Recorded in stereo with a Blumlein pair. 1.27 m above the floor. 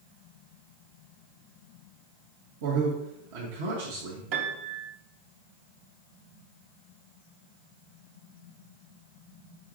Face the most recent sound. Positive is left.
turn(degrees=-45)